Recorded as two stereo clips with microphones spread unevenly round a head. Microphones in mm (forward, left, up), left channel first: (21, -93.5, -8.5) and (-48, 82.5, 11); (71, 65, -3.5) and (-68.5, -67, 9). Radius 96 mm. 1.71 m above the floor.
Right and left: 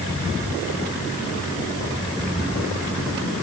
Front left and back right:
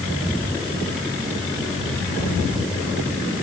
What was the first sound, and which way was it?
Only background noise.